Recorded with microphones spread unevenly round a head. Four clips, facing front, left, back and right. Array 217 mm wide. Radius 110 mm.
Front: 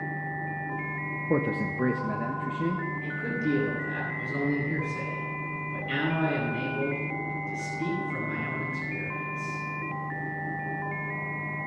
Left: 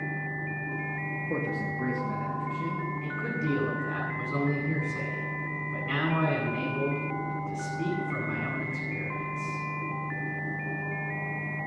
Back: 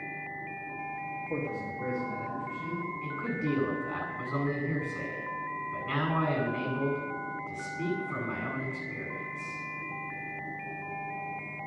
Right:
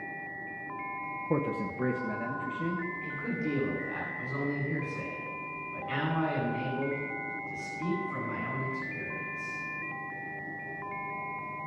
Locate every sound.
1.3 s a man speaking: 10° right, 1.1 m
3.0 s a man speaking: 125° left, 9.5 m